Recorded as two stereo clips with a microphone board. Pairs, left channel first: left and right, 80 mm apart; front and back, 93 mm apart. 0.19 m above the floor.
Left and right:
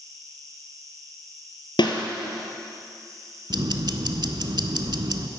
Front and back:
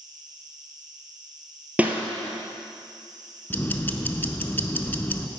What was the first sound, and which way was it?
An insect, 135° right.